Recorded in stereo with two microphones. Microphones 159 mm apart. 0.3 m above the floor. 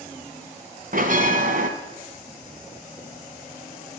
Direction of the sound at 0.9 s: 60° right (ahead or behind).